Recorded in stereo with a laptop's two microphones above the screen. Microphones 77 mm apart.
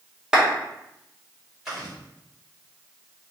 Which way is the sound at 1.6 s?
5° right (ahead or behind).